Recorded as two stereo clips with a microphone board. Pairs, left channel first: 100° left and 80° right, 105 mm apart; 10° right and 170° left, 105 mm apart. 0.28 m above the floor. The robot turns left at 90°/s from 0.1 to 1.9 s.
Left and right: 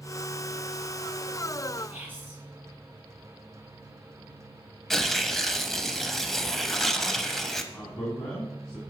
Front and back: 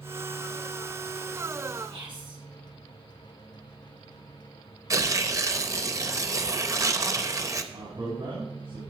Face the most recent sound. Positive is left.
turn(degrees=180)